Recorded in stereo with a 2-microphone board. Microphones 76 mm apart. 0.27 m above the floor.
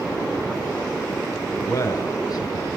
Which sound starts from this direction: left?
A man speaking, at 1.6 s.